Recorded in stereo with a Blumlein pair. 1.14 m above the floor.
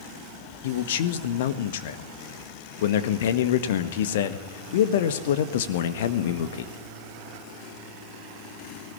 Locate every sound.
0.6 s a man speaking: 55° left, 1.7 m